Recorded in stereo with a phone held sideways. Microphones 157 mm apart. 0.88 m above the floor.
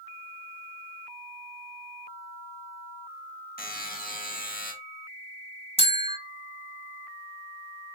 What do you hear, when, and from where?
3.6 s a buzzer: 70° left (ahead or behind), 1.4 m
5.8 s a bell: 35° left (ahead or behind), 1.0 m